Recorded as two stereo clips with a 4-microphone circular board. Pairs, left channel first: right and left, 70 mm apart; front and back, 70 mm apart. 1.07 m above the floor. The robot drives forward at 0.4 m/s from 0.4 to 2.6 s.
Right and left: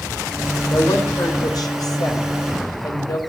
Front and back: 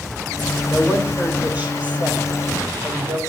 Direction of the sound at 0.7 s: 110° right.